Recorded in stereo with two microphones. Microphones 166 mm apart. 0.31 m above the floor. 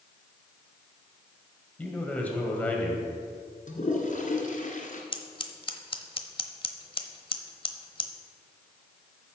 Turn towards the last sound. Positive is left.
turn(degrees=35)  # may be behind; listen again after turning